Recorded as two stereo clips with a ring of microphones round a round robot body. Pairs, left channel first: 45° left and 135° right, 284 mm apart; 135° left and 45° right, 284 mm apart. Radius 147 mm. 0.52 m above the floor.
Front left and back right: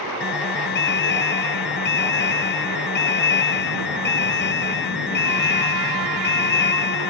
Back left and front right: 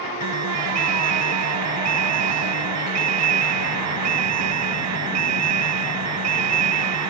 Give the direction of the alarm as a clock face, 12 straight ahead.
12 o'clock.